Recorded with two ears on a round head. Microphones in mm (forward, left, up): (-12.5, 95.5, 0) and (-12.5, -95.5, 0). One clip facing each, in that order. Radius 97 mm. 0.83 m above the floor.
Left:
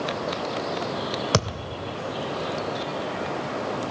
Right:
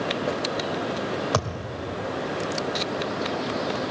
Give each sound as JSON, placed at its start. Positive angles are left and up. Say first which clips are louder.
{"t": 1.3, "sound": "a thud", "louder": "left 1 dB", "side_deg": 35, "distance_m": 1.7}